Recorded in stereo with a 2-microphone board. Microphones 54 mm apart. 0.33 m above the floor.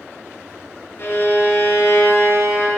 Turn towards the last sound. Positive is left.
turn(degrees=45)  # may be behind; listen again after turning